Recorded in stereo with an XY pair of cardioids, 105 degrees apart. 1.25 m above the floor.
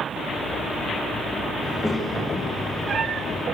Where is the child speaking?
10° left, 5.5 m; by 3.5 s 20° left, 4 m.